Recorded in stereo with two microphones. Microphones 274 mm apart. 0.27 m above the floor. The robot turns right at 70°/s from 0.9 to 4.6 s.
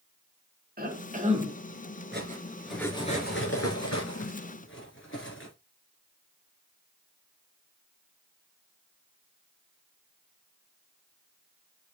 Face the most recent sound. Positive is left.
turn(degrees=45)  # may be behind; listen again after turning